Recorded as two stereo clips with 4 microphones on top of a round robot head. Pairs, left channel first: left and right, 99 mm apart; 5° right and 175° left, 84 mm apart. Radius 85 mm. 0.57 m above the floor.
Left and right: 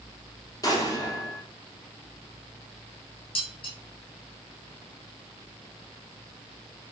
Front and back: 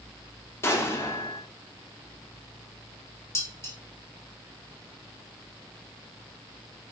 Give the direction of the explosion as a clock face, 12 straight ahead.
10 o'clock.